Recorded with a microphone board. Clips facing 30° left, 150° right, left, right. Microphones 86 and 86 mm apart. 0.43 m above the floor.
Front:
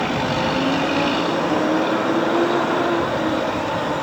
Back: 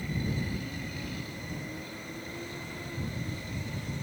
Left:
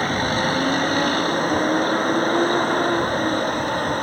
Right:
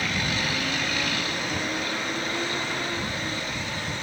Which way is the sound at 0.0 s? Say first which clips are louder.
Front 14 dB, left 7 dB; 40° left.